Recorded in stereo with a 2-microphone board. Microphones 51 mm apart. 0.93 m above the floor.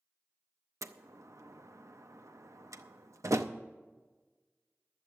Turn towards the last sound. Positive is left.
turn(degrees=-85)